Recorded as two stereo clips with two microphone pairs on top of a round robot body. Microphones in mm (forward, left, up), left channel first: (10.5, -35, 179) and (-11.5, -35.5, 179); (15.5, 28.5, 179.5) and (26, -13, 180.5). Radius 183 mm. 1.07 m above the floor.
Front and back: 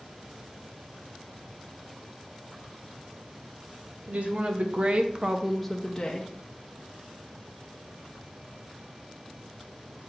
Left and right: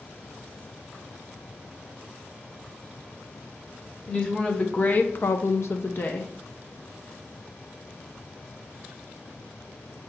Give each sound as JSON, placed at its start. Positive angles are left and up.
{"t": 4.1, "sound": "a woman speaking", "azimuth_deg": 175, "distance_m": 1.4}